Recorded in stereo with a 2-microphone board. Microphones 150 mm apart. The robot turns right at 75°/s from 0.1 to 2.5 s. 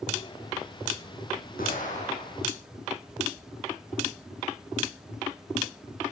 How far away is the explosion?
About 10 m.